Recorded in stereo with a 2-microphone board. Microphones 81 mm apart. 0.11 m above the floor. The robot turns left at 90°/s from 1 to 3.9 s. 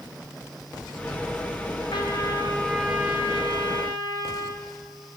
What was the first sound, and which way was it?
A trumpet, 80° left.